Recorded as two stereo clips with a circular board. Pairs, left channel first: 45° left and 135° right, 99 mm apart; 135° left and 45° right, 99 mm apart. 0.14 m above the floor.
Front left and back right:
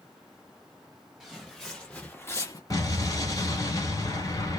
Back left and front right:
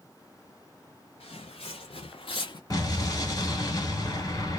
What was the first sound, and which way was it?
Footsteps, 140° left.